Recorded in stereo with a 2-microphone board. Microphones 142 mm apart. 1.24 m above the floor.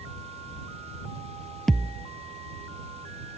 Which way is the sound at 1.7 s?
5° left (ahead or behind).